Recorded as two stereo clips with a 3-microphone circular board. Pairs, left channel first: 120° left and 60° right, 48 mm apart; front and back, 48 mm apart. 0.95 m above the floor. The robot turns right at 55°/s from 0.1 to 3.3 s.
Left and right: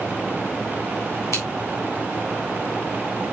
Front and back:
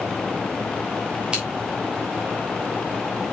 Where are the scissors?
110° left, 3.5 m; by 1.4 s 115° left, 3.5 m.